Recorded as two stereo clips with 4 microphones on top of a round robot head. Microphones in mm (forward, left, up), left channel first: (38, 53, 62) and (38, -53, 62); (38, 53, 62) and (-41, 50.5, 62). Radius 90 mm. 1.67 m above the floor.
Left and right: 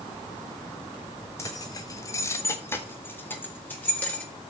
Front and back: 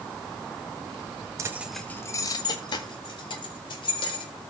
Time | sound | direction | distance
1.4 | keys jangling | 155° left | 1.0 m